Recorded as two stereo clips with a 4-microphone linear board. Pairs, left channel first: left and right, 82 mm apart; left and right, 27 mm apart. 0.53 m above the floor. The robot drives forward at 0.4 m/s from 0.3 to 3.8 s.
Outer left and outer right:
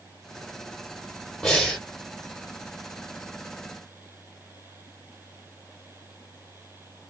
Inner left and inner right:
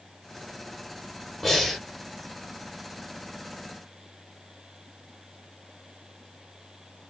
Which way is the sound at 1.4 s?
5° left (ahead or behind).